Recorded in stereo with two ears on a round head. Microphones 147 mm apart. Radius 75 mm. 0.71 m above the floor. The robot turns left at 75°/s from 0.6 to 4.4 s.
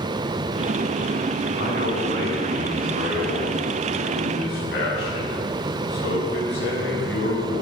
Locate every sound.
1.6 s a man speaking: 50° right, 6 m; by 7.6 s 100° left, 6 m